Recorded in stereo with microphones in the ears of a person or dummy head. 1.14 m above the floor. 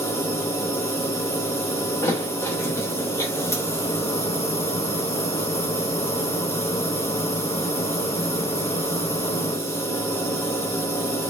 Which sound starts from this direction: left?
A machine running, at 0.0 s.